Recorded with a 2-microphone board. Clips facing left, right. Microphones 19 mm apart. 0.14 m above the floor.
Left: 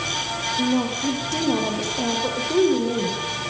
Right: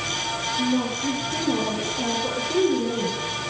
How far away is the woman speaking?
About 7.5 m.